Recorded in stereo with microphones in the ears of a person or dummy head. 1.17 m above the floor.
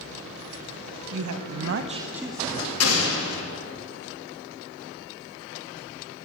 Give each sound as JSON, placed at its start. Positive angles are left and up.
{"t": 1.1, "sound": "a woman speaking", "side_deg": -75, "distance_m": 1.0}
{"t": 2.8, "sound": "an explosion", "side_deg": 80, "distance_m": 2.0}